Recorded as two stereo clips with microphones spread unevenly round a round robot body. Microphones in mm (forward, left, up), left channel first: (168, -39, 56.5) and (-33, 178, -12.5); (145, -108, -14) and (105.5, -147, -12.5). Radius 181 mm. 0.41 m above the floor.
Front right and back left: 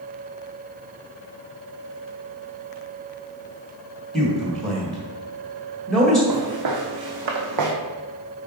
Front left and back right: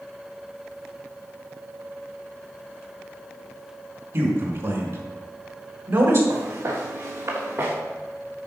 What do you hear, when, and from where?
4.1 s a man speaking: 145° right, 1.5 m
6.3 s footsteps: 170° left, 2.0 m; by 7.8 s 160° left, 1.3 m